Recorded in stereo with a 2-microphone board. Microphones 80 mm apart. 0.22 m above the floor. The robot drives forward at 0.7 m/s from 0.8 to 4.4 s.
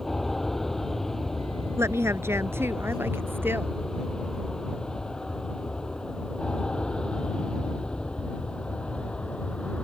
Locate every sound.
0.0 s an aircraft: 5° left (ahead or behind); by 9.8 s 15° left (ahead or behind)
1.8 s a woman speaking: 35° right (ahead or behind); by 3.8 s 25° right (ahead or behind)